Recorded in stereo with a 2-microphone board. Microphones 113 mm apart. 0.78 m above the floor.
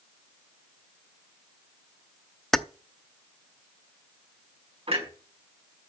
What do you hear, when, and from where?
2.5 s keys jangling: 5° left (ahead or behind), 0.6 m
4.9 s a clunk: 60° right (ahead or behind), 5 m